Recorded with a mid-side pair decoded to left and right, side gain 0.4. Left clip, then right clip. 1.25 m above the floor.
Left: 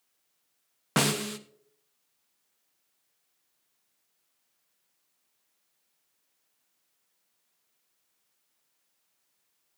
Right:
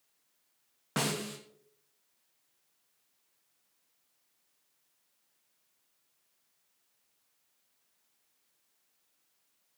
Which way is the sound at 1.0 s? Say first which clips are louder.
Left 6 dB; 60° left.